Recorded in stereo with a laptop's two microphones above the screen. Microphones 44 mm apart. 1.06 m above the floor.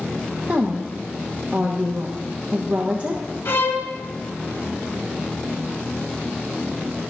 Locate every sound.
0.5 s a woman speaking: 25° right (ahead or behind), 1.2 m
3.5 s a violin: 65° left (ahead or behind), 1.0 m